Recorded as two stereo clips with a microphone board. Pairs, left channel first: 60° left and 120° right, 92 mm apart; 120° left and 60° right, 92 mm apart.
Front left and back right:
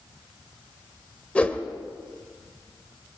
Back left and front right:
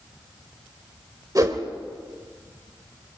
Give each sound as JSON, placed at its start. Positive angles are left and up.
{"t": 1.4, "sound": "a whoosh", "azimuth_deg": -15, "distance_m": 1.6}